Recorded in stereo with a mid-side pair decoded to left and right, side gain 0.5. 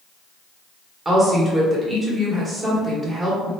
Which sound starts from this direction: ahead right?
A woman speaking, at 1.1 s.